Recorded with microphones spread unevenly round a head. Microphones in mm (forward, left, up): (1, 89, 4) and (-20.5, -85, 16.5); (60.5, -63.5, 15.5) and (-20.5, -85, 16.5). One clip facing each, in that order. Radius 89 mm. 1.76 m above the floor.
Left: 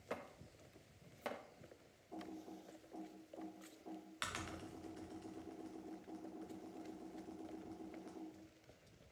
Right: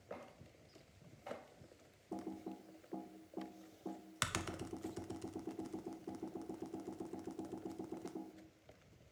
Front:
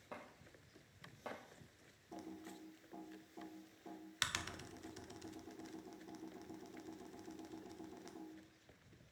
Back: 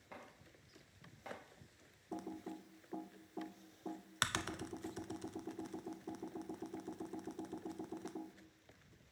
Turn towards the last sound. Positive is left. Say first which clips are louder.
# right 5 dB, back 5 dB
turn(degrees=-120)